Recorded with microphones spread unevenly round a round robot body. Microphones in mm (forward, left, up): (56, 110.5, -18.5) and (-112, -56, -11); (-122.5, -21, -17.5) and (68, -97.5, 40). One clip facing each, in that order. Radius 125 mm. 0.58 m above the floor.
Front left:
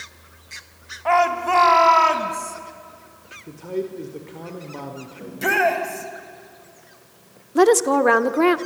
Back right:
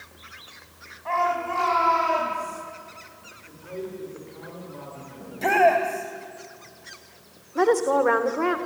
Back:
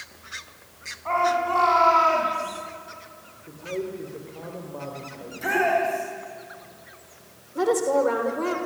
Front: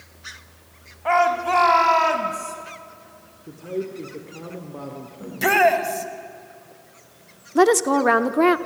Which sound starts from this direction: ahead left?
A man speaking, at 3.5 s.